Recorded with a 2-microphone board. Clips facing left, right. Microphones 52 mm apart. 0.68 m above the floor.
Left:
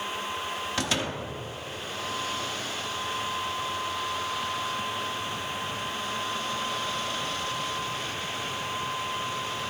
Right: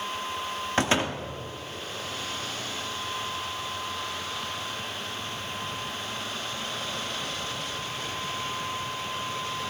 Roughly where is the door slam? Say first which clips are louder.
Right 6 dB; right.